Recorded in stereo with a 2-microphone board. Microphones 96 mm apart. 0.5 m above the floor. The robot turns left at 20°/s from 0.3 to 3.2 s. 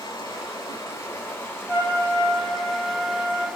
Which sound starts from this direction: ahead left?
Running water, at 0.0 s.